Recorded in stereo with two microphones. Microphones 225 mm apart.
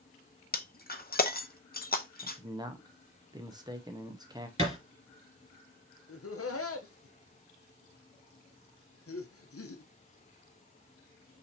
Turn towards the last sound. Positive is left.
turn(degrees=85)